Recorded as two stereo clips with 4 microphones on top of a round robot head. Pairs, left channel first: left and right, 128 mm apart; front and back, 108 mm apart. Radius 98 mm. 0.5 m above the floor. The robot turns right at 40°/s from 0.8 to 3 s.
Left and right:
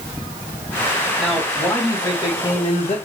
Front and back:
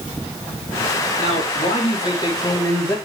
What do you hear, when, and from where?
1.2 s a man speaking: 15° right, 3.5 m; by 3.0 s 55° left, 3.5 m